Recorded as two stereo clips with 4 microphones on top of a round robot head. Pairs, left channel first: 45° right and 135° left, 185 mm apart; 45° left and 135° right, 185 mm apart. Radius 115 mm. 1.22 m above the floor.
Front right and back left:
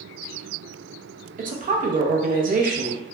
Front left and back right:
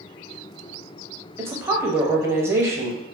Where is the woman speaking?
155° left, 0.7 m.